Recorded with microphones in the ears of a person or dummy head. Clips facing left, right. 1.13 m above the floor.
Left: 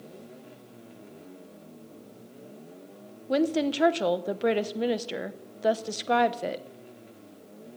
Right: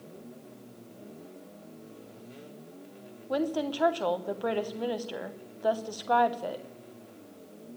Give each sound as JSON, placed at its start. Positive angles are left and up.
{"t": 3.3, "sound": "a woman speaking", "side_deg": 30, "distance_m": 0.8}